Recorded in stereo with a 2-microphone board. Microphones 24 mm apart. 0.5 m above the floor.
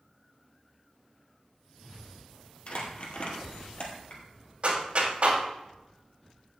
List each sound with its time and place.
2.7 s crumpling: 50° left (ahead or behind), 2 m
4.6 s a clap: 55° right (ahead or behind), 2.5 m